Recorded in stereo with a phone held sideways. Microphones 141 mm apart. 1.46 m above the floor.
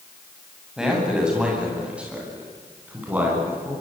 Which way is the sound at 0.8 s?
5° right (ahead or behind).